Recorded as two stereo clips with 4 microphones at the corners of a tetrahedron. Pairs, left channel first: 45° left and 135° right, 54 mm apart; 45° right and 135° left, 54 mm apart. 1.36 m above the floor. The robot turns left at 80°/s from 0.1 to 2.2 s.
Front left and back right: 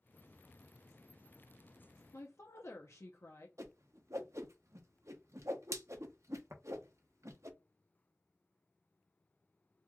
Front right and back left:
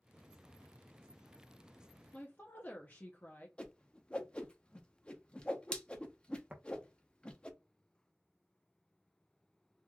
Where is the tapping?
160° right, 0.9 m.